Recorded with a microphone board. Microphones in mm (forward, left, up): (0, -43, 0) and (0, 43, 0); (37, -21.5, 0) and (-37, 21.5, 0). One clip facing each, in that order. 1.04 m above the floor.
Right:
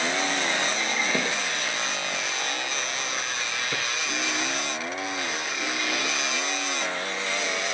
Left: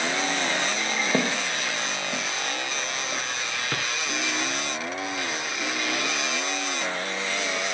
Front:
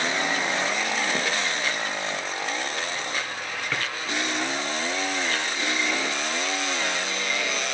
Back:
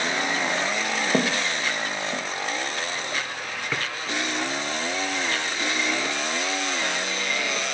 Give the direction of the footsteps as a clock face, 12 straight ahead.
7 o'clock.